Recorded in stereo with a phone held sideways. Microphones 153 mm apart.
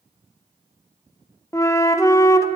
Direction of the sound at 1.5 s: 20° left (ahead or behind).